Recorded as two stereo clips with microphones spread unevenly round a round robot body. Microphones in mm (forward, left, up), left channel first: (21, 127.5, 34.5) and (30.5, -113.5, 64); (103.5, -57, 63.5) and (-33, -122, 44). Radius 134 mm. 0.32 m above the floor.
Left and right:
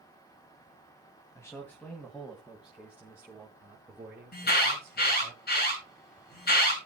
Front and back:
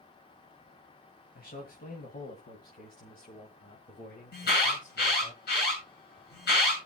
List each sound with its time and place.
1.4 s a man speaking: 20° left, 2.5 m; by 5.3 s 15° right, 5.5 m
4.3 s an alarm: 45° left, 8.5 m